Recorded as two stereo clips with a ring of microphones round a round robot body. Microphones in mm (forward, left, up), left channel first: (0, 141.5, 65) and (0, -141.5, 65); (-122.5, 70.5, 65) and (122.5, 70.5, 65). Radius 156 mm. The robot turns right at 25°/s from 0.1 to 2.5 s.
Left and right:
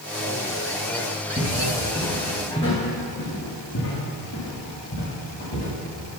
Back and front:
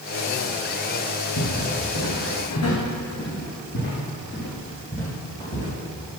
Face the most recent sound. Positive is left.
turn(degrees=120)